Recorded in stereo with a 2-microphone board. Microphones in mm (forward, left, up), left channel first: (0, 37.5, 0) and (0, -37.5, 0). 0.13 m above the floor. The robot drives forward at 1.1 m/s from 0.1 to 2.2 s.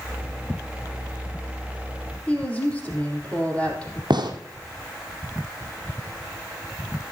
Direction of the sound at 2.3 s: 15° left (ahead or behind).